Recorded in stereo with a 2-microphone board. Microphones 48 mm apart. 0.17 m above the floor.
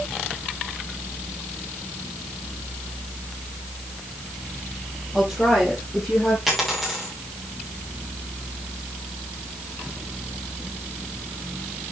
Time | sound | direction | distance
5.1 | a woman speaking | 15° right (ahead or behind) | 6 m
6.5 | a dropped coin | centre (ahead or behind) | 6 m